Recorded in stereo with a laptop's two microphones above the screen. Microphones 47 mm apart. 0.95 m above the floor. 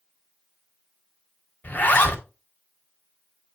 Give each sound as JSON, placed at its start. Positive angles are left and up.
{"t": 1.6, "sound": "a zipper", "side_deg": 35, "distance_m": 1.2}